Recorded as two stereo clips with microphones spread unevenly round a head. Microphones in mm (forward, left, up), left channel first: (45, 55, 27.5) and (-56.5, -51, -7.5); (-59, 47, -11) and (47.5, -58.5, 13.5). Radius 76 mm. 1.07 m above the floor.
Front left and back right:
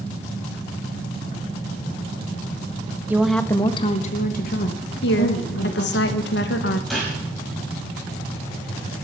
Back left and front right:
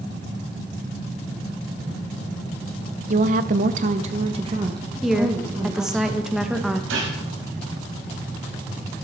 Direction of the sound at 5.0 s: 50° left.